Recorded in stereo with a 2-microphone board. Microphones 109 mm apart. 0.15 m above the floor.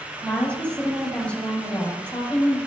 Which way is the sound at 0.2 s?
10° left (ahead or behind).